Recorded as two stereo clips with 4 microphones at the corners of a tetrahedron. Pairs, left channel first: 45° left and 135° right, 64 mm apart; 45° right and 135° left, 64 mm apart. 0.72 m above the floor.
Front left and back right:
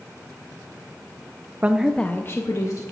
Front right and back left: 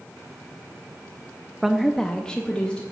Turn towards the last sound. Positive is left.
turn(degrees=25)